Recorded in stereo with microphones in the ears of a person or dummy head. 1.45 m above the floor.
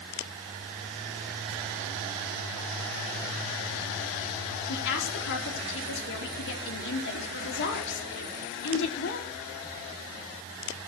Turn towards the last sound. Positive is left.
turn(degrees=65)  # may be behind; listen again after turning